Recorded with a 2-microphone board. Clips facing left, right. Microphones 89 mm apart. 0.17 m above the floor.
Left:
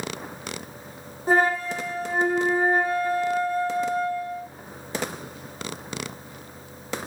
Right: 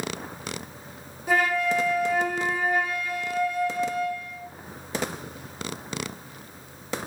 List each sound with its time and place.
1.3 s a flute: 35° left (ahead or behind), 2 m